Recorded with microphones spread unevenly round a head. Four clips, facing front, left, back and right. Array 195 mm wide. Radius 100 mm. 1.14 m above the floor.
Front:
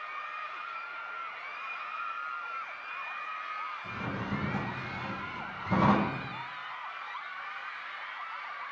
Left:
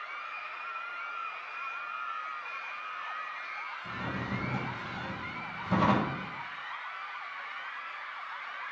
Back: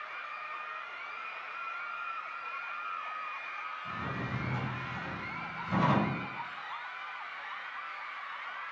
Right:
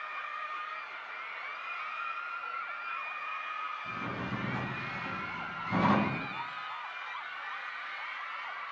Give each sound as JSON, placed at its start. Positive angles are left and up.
{"t": 3.8, "sound": "a drawer", "azimuth_deg": 35, "distance_m": 3.0}